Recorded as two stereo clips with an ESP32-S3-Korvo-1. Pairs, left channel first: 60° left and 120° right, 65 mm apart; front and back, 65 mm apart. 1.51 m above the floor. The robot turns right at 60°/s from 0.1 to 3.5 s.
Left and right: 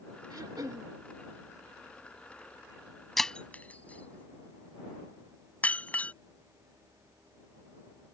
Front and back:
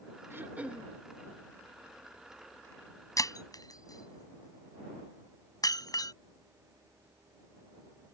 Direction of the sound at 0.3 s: 130° right.